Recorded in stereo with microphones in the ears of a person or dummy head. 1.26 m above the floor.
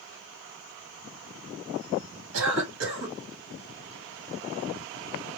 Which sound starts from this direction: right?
A cough, at 2.3 s.